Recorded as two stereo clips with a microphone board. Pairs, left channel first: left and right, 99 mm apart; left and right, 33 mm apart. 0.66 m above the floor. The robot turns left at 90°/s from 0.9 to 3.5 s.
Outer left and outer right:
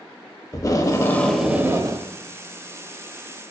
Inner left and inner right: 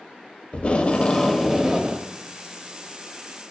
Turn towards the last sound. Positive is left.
turn(degrees=170)